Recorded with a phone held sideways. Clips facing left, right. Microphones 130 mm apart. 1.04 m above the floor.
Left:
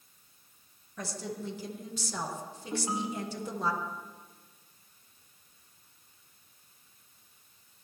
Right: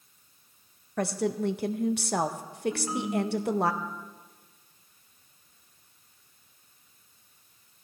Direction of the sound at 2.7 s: 20° left (ahead or behind).